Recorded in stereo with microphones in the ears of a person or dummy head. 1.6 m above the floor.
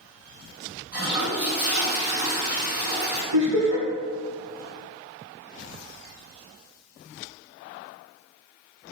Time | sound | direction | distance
0.9 | a toilet flushing | 40° right (ahead or behind) | 0.8 m
3.3 | laughter | 75° right (ahead or behind) | 1.5 m